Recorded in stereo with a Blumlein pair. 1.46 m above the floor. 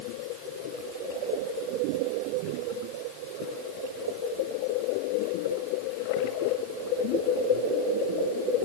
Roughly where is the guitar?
I don't hear a guitar.